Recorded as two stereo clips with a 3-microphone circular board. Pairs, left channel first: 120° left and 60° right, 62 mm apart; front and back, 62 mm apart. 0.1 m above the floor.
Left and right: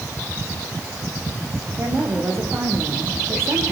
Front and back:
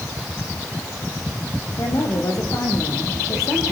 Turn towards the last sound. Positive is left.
turn(degrees=-20)